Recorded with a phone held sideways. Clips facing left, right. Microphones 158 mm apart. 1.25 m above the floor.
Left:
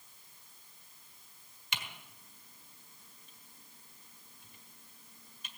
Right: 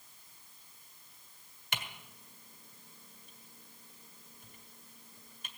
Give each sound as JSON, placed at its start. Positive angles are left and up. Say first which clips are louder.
{"t": 1.7, "sound": "typing on a keyboard", "louder": "right 2 dB", "side_deg": -60, "distance_m": 1.5}